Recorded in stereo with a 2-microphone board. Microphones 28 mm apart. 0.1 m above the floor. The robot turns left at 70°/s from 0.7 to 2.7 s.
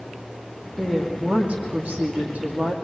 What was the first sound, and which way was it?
A woman speaking, 5° right.